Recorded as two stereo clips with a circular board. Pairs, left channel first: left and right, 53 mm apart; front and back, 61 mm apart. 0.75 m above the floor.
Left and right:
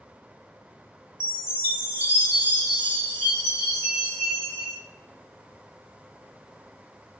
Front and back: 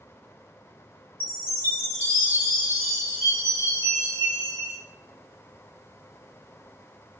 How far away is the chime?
About 2.5 m.